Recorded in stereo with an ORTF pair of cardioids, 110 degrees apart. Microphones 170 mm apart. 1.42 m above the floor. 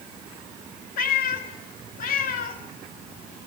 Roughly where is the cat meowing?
Ahead left.